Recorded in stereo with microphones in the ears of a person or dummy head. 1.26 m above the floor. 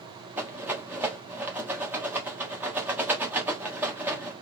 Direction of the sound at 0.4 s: 15° right (ahead or behind).